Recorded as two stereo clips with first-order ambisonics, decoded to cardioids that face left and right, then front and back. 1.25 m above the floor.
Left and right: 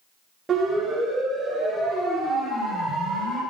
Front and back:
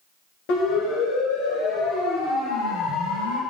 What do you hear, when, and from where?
0.5 s a siren: 10° right, 8 m; by 3.4 s 25° left, 7 m